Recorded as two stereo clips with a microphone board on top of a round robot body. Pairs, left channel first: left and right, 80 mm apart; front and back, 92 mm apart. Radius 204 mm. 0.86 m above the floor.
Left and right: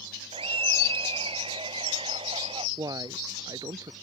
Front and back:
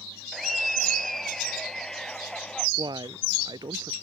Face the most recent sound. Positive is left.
turn(degrees=-135)